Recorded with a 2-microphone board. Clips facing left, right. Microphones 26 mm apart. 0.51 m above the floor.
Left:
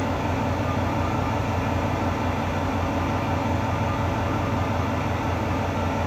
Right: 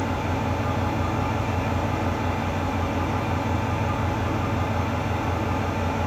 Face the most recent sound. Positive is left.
turn(degrees=30)  # may be behind; listen again after turning